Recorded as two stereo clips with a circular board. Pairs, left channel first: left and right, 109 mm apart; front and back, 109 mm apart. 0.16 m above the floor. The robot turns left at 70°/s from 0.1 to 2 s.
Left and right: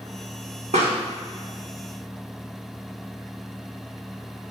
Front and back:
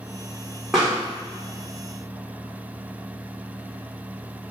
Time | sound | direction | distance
0.7 | a pop | 95° right | 2.0 m